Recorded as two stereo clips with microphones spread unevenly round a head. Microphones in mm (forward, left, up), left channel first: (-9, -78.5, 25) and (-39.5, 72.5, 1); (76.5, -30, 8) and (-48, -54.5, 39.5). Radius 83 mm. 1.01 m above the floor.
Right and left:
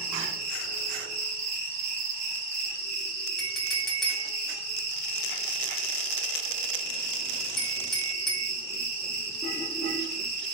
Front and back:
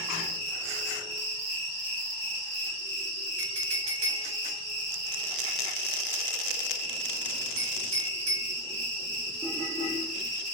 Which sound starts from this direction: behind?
A clink, at 3.4 s.